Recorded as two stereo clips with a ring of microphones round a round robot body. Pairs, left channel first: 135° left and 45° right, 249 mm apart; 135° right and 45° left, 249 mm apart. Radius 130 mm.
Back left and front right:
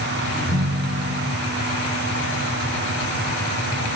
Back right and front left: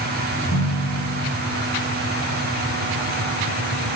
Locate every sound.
0.3 s a ringtone: 140° right, 10 m